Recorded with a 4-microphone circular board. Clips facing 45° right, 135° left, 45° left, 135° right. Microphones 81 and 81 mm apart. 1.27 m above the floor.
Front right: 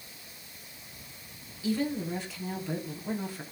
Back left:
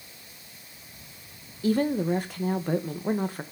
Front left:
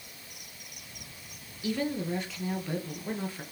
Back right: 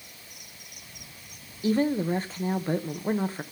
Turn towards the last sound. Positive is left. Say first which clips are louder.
# back left 6 dB, back right 7 dB
turn(degrees=175)